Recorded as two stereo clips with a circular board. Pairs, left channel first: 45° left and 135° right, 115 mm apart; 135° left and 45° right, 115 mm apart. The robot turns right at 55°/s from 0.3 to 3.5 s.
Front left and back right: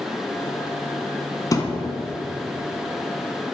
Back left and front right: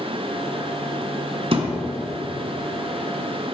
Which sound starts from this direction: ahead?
A thud, at 1.5 s.